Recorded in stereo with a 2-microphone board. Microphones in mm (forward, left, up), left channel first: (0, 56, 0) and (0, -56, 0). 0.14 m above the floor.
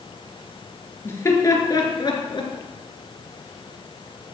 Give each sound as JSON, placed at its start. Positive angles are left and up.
{"t": 1.1, "sound": "laughter", "side_deg": 25, "distance_m": 3.0}